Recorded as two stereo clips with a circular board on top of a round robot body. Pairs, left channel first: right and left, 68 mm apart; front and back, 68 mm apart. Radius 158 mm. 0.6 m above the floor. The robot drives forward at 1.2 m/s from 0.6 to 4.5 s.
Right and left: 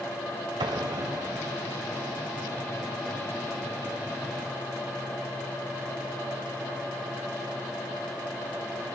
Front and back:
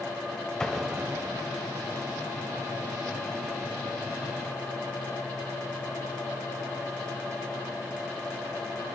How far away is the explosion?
About 1.0 m.